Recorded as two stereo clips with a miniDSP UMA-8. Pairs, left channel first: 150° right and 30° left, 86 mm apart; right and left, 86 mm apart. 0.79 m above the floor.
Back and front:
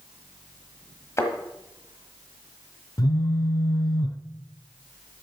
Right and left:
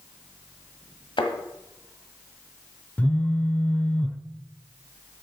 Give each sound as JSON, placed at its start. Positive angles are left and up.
{"t": 1.2, "sound": "a thud", "azimuth_deg": -95, "distance_m": 1.4}
{"t": 3.0, "sound": "a phone buzzing", "azimuth_deg": -155, "distance_m": 0.6}